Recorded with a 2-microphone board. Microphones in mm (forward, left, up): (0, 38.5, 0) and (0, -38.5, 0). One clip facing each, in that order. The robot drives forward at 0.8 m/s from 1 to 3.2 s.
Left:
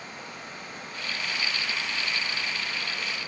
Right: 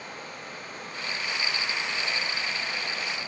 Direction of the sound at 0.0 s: 50° right (ahead or behind).